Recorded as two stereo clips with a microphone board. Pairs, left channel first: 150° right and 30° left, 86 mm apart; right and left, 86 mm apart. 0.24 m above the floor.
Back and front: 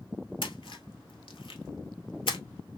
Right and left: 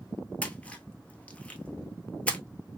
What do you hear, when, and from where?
0.4 s a splash: 165° right, 0.8 m